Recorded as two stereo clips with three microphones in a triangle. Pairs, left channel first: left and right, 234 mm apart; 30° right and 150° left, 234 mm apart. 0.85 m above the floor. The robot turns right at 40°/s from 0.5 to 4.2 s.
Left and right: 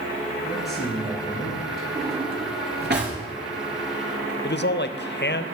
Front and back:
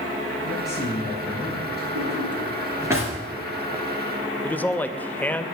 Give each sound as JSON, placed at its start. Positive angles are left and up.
{"t": 0.4, "sound": "a man speaking", "azimuth_deg": 5, "distance_m": 6.5}
{"t": 1.9, "sound": "a drawer", "azimuth_deg": -170, "distance_m": 3.0}
{"t": 4.4, "sound": "a man speaking", "azimuth_deg": 50, "distance_m": 0.6}